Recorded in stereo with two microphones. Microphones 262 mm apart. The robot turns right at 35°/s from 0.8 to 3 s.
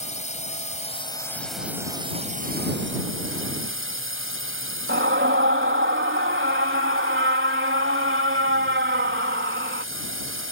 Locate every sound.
0.0 s a drone: 155° left; by 10.5 s 130° right
4.9 s a scream: 50° right (ahead or behind)